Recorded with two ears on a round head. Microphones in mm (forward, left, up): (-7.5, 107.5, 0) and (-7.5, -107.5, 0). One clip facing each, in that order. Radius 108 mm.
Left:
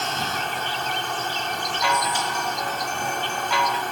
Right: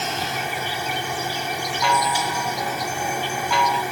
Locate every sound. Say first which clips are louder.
0.0 s an insect: right 1 dB; 10° right (ahead or behind)
1.8 s a chime: right 3 dB; 80° right